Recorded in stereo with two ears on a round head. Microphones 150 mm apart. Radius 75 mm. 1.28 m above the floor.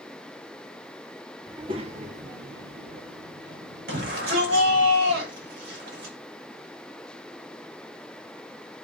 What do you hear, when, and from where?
1.5 s a child speaking: 25° right (ahead or behind), 1.9 m; by 4.9 s 70° right (ahead or behind), 4.5 m
3.9 s a shout: 75° right (ahead or behind), 7 m